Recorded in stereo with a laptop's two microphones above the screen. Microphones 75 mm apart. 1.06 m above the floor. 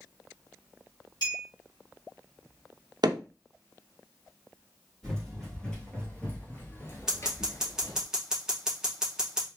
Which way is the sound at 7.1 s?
5° right (ahead or behind).